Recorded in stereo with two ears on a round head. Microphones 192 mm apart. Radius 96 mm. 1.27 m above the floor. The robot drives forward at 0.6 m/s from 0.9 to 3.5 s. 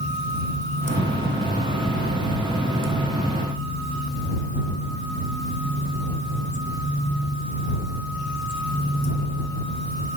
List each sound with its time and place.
Only background noise.